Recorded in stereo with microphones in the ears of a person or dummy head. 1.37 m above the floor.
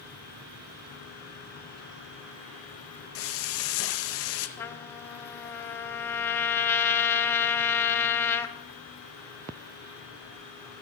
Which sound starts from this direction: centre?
A trumpet, at 4.6 s.